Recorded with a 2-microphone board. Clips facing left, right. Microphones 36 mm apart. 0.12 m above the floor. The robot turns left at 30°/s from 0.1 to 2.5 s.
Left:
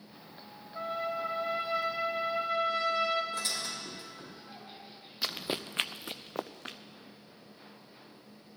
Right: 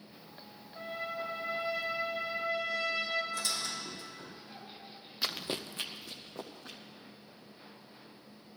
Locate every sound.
0.7 s a trumpet: 150° left, 4 m; by 3.2 s 100° left, 4 m
3.3 s a squeak: 40° left (ahead or behind), 4.5 m
5.2 s running footsteps: centre (ahead or behind), 0.8 m; by 6.8 s 60° left (ahead or behind), 1.1 m